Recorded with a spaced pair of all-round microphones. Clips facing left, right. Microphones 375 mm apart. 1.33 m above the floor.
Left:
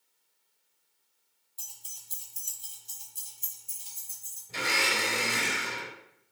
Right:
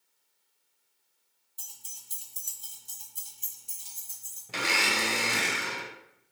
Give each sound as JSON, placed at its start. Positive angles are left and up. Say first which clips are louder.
{"t": 1.6, "sound": "keys jangling", "louder": "right 1 dB", "side_deg": -25, "distance_m": 0.9}
{"t": 4.5, "sound": "a blender", "louder": "right 1 dB", "side_deg": -80, "distance_m": 0.7}